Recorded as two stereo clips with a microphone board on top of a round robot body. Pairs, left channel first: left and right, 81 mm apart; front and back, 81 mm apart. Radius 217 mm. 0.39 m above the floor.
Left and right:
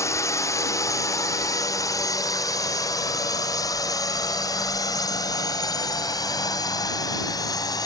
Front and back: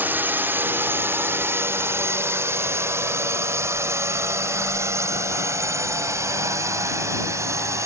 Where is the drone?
120° left; by 7.9 s 130° left.